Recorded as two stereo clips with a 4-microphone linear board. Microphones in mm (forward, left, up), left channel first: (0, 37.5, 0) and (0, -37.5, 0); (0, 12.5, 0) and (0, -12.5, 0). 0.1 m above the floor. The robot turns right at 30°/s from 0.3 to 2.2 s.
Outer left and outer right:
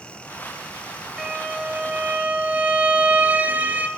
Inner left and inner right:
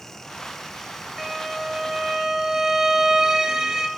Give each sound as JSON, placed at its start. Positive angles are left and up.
{"t": 1.2, "sound": "a violin", "azimuth_deg": -175, "distance_m": 0.9}